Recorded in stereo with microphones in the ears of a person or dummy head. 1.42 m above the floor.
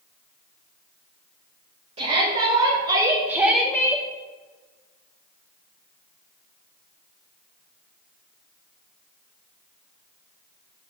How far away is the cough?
I don't hear a cough.